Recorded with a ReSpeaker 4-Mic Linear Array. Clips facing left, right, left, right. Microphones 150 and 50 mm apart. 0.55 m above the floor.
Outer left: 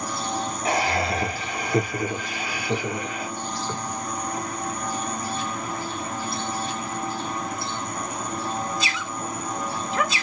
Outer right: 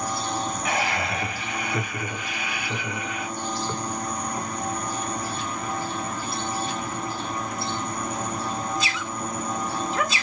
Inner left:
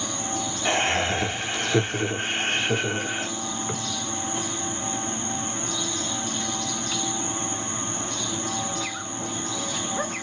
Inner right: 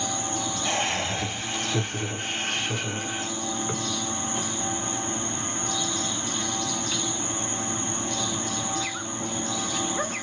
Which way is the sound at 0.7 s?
35° left (ahead or behind).